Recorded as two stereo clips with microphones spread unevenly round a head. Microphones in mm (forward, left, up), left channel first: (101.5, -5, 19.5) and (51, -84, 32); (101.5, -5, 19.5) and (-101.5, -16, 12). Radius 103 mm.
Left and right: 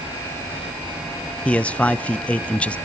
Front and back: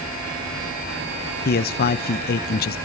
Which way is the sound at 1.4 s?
5° right.